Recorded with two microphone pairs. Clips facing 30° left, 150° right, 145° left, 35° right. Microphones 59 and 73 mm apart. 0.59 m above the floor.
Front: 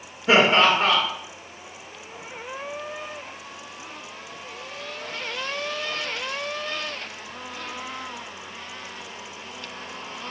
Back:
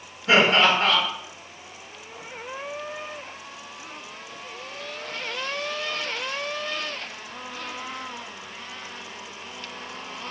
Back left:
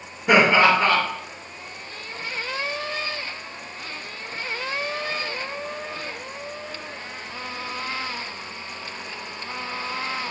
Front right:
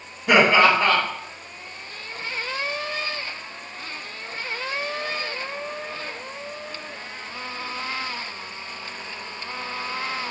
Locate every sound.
0.3 s laughter: 75° left, 1.1 m